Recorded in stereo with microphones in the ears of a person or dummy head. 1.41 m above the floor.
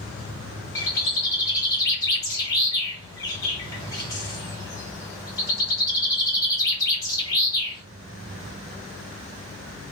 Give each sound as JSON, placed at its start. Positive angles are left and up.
{"t": 0.8, "sound": "a bird", "side_deg": 10, "distance_m": 0.9}